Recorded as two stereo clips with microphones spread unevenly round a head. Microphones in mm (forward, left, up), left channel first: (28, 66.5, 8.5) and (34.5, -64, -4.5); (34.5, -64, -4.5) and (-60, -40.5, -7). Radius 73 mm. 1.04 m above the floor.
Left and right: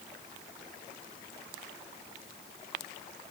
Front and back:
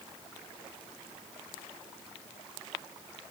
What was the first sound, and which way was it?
Only background noise.